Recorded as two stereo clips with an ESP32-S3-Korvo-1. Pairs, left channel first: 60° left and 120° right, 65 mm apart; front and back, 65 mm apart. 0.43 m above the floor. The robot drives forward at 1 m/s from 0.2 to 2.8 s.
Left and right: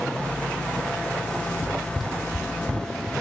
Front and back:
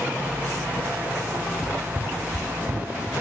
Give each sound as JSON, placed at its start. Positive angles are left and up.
{"t": 1.6, "sound": "running footsteps", "azimuth_deg": -15, "distance_m": 1.4}